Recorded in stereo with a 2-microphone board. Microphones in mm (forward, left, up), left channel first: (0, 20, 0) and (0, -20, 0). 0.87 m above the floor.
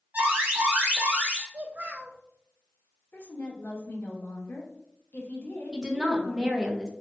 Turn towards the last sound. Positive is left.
turn(degrees=-20)  # may be behind; listen again after turning